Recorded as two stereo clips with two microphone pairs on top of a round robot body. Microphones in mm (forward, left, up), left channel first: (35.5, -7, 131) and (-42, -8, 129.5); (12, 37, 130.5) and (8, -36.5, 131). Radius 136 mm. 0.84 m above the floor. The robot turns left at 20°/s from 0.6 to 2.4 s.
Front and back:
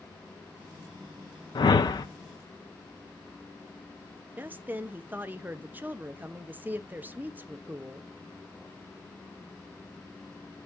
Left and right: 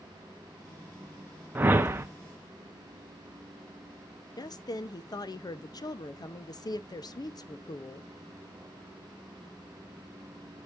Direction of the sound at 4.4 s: 115° left.